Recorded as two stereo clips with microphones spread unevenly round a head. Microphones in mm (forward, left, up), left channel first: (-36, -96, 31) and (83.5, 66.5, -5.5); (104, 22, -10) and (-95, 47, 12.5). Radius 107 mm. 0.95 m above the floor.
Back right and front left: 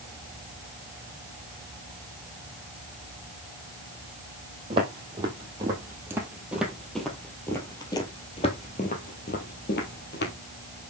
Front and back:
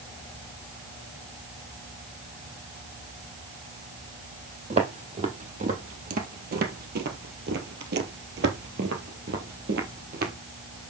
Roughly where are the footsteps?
Behind left.